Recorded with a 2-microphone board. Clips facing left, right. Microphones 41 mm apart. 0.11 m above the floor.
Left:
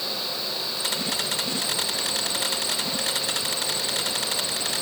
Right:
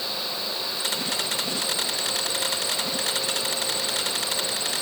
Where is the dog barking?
No dog barking in this recording.